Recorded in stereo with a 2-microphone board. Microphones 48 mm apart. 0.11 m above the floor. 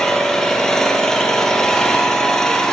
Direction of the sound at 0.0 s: 10° left (ahead or behind).